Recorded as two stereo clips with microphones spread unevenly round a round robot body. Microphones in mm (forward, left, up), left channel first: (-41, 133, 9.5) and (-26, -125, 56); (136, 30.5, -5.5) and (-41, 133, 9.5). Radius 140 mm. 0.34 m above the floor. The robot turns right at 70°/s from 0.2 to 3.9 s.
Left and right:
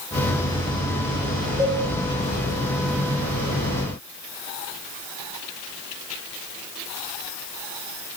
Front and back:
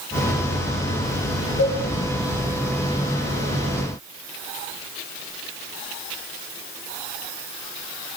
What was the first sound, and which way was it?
A cowbell, 15° right.